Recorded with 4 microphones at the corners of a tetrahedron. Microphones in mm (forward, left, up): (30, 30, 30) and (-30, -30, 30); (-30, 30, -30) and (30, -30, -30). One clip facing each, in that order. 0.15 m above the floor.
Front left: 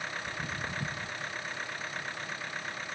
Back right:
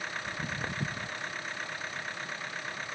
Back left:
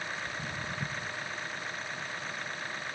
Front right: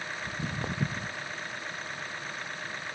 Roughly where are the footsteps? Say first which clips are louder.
Back right 1 dB, front right 3 dB; ahead right.